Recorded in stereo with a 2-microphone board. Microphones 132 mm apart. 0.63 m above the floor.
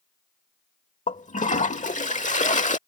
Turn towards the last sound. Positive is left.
turn(degrees=70)  # may be behind; listen again after turning